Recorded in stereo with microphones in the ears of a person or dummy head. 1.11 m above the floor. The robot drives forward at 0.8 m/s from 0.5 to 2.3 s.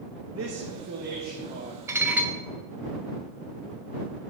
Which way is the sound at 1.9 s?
15° right (ahead or behind).